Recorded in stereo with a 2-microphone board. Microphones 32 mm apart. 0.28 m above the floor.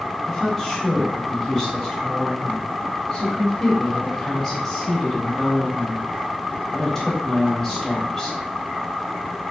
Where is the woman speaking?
Centre (ahead or behind), 1.0 m.